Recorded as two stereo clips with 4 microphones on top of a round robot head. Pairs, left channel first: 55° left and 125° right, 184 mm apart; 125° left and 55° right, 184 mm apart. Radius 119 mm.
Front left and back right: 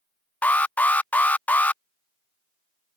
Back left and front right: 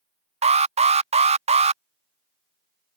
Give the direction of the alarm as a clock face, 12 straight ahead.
1 o'clock.